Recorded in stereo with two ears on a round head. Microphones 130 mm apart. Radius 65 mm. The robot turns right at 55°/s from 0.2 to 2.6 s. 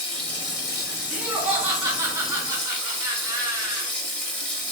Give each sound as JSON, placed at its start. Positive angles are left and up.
{"t": 0.0, "sound": "running water", "azimuth_deg": 35, "distance_m": 1.2}
{"t": 1.1, "sound": "laughter", "side_deg": -5, "distance_m": 0.9}